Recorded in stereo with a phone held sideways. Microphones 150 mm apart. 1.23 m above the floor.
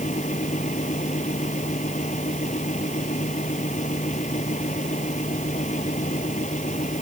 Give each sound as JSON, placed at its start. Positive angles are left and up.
{"t": 0.0, "sound": "a fan", "side_deg": 55}